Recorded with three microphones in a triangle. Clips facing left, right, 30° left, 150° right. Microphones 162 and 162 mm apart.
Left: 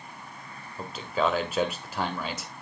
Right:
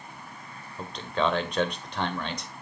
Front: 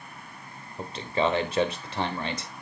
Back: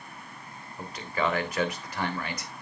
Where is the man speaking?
10° left, 1.4 m.